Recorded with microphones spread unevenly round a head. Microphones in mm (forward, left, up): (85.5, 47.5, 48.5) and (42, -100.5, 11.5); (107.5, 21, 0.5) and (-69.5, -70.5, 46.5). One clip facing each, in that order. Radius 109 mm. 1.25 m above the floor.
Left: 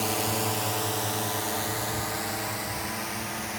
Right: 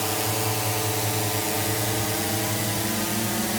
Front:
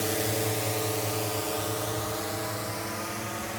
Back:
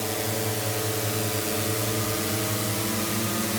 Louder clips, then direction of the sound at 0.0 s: Right 1 dB, even; 30° right.